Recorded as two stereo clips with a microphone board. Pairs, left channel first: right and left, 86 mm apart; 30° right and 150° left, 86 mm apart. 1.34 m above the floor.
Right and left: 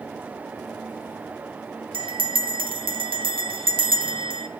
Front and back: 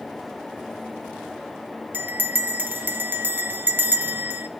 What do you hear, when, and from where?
1.9 s a bell: 85° left, 0.9 m